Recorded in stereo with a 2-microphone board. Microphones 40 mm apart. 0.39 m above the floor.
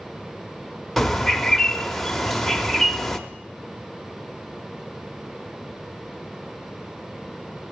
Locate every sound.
1.0 s a bird: 5° left (ahead or behind), 0.7 m